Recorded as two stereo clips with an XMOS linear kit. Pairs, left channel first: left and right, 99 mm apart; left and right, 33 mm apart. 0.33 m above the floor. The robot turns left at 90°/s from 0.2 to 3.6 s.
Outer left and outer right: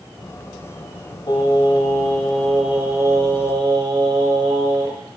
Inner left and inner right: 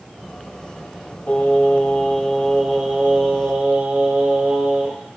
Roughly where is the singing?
Behind left.